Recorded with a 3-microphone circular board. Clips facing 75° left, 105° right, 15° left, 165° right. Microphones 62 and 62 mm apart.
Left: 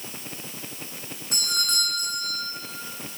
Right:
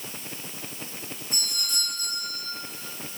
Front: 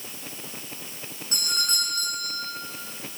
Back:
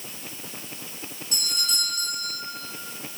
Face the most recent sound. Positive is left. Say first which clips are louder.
# left 6 dB, front 2 dB
turn(degrees=60)